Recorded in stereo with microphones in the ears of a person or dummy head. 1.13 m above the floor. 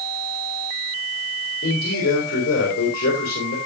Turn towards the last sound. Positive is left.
turn(degrees=65)  # may be behind; listen again after turning